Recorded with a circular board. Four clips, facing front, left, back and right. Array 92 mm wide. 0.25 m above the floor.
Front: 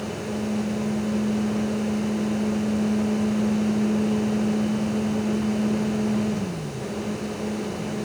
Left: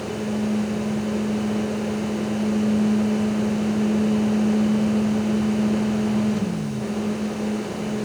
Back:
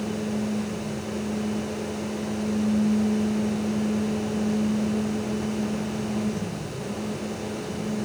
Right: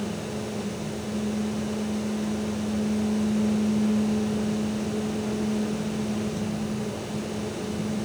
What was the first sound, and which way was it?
Only background noise.